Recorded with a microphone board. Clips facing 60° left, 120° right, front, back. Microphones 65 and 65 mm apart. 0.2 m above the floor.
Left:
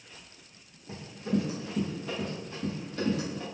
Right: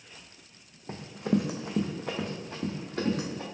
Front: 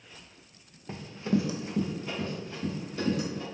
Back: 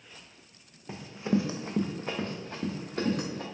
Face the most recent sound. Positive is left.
turn(degrees=-160)